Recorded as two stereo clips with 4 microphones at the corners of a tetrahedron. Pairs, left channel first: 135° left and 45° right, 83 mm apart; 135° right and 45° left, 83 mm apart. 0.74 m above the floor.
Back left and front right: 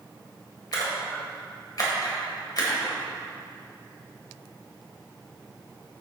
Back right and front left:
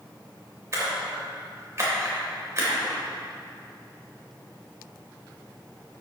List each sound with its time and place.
0.7 s a splash: 95° left, 2.5 m